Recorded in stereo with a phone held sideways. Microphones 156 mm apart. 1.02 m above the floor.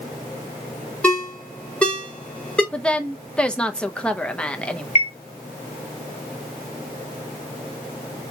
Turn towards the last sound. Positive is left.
turn(degrees=45)  # may be behind; listen again after turning